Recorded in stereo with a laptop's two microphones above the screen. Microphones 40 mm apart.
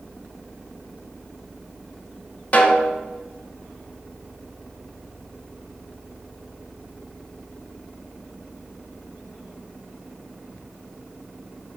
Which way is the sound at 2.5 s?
35° left (ahead or behind).